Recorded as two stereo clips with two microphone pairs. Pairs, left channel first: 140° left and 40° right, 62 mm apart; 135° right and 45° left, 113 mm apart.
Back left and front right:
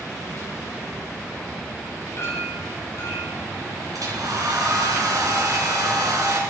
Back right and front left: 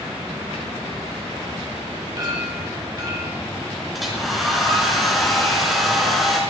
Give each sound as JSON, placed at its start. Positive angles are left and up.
{"t": 2.2, "sound": "a clink", "azimuth_deg": 100, "distance_m": 4.0}
{"t": 3.9, "sound": "a hair dryer", "azimuth_deg": -45, "distance_m": 3.5}